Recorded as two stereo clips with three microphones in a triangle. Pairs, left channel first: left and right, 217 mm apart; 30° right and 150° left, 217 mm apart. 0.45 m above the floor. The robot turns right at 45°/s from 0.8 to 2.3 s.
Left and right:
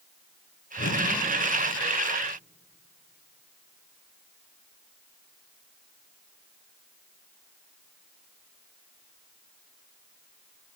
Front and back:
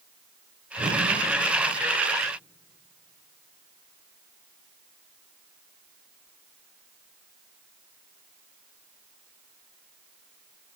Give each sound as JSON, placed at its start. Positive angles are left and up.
{"t": 0.8, "sound": "a whoosh", "azimuth_deg": 95, "distance_m": 5.5}